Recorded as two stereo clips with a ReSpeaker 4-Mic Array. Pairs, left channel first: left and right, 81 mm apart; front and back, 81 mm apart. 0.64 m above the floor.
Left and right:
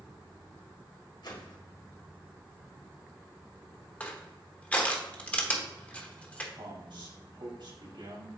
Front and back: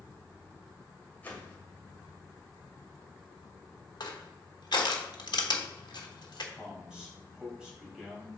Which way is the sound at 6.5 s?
100° right.